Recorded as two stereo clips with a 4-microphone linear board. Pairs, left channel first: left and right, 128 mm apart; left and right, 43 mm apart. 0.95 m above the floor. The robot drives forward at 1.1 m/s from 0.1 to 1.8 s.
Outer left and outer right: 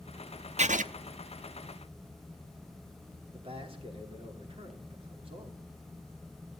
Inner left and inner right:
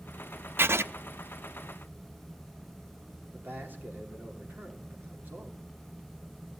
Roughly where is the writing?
Right.